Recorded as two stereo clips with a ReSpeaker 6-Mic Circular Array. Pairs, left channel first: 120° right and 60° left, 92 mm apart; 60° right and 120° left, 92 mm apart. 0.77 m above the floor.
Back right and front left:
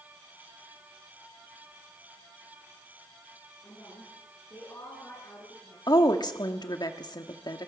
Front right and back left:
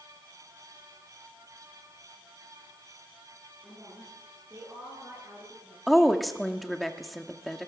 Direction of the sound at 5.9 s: 150° right.